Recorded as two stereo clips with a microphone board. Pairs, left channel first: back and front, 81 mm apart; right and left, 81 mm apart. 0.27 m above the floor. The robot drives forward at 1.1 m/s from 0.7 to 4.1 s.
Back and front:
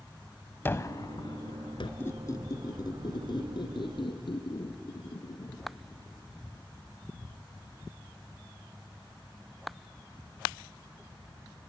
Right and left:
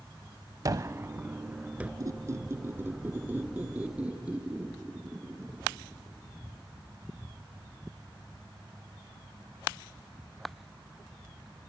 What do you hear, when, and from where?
0.7 s a gunshot: 125° left, 0.6 m; by 1.9 s 165° left, 1.7 m
2.0 s a squeak: 125° left, 1.1 m; by 6.0 s 165° left, 3 m